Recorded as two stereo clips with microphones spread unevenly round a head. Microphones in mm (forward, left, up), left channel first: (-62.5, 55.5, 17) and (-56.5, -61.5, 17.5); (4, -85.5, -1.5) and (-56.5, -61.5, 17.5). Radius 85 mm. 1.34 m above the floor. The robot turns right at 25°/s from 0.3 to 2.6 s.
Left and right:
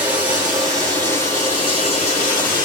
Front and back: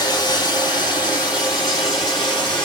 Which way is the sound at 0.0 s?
5° right.